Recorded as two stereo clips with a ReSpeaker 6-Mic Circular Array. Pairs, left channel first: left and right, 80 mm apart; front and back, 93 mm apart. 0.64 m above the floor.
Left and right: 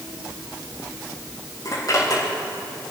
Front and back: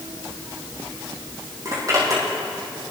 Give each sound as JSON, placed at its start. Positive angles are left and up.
{"t": 1.6, "sound": "a zipper", "azimuth_deg": 130, "distance_m": 6.0}